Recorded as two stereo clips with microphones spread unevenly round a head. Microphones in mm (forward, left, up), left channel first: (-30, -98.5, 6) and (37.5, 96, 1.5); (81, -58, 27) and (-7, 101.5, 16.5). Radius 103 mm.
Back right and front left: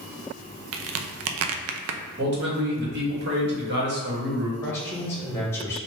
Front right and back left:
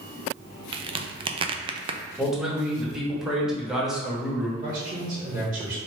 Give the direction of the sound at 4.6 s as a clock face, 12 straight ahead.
6 o'clock.